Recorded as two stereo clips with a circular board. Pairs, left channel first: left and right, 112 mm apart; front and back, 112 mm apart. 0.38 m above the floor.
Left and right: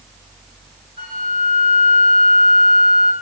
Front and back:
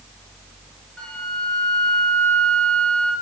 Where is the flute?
80° right, 1.1 m.